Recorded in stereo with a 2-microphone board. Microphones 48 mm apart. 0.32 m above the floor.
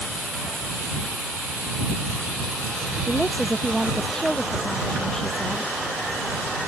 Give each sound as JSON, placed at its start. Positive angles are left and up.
{"t": 3.1, "sound": "a woman speaking", "side_deg": 10}